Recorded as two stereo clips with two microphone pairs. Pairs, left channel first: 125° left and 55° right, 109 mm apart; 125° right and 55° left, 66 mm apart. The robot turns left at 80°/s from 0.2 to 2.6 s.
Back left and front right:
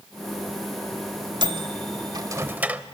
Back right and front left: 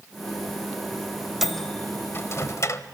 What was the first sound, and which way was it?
A microwave, 30° right.